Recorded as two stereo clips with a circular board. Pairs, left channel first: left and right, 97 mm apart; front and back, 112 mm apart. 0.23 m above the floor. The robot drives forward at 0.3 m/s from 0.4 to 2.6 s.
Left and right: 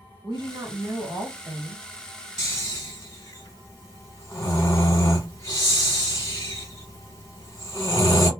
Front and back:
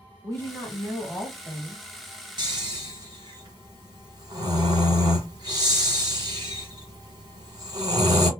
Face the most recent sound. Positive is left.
turn(degrees=145)